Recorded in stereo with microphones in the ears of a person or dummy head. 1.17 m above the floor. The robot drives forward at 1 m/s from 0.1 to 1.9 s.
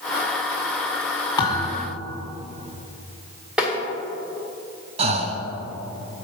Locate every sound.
1.4 s a thud: 20° left (ahead or behind), 1.6 m; by 1.9 s 15° left (ahead or behind), 2.0 m
3.6 s tapping: 5° right (ahead or behind), 1.3 m
5.0 s breathing: 35° right (ahead or behind), 0.6 m